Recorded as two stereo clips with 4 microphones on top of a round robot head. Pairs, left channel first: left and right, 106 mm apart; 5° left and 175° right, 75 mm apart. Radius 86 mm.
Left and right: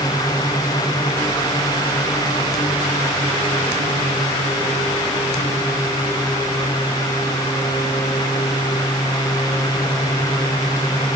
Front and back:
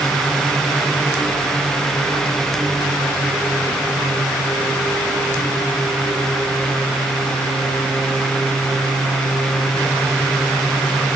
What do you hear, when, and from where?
Only background noise.